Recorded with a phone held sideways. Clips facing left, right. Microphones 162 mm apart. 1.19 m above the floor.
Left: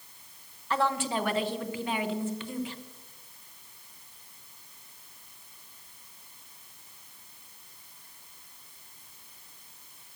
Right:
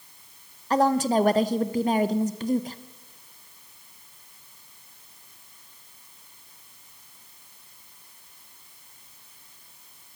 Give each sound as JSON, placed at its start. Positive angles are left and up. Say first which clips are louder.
{"t": 0.7, "sound": "a woman speaking", "louder": "right 8 dB", "side_deg": -40, "distance_m": 0.6}